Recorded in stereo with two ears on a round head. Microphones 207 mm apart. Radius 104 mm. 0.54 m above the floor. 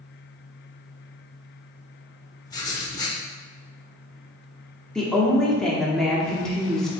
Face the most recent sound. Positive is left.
turn(degrees=5)  # may be behind; listen again after turning